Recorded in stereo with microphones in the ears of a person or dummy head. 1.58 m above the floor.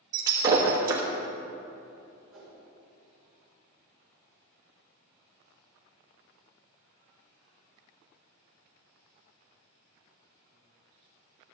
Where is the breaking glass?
15° right (ahead or behind), 1.1 m.